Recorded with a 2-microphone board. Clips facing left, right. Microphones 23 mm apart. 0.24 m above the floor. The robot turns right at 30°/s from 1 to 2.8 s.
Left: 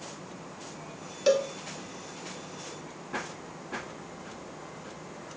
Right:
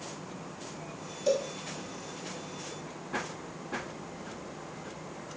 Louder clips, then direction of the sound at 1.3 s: Left 4 dB; 80° left.